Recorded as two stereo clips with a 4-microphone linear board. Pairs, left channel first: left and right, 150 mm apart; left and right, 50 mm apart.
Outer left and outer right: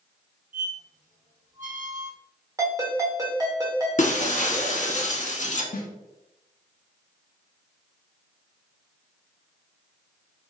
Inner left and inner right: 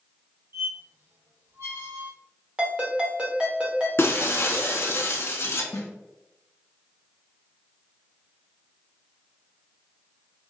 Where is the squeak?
60° right (ahead or behind), 0.9 m.